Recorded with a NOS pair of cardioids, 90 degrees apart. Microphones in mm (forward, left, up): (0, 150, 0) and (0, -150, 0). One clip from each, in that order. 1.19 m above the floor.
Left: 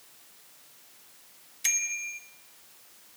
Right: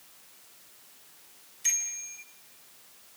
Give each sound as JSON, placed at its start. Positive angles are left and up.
{"t": 1.6, "sound": "a bicycle bell", "azimuth_deg": 50, "distance_m": 4.0}